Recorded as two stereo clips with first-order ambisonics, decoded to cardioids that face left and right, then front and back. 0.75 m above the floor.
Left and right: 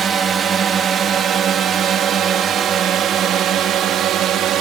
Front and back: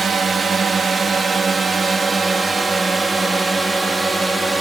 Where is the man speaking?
No man speaking in this recording.